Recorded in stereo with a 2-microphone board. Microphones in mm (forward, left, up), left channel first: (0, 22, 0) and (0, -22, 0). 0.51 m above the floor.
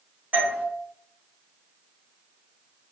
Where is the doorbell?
30° right (ahead or behind), 1.3 m.